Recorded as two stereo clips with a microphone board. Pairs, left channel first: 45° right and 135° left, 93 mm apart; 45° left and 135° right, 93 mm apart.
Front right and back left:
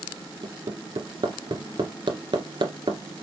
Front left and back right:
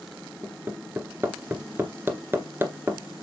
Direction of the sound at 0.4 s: 160° left.